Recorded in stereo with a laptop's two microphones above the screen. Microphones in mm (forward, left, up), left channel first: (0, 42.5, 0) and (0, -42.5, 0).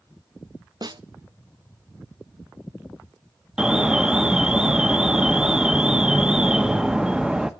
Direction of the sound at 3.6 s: 10° right (ahead or behind).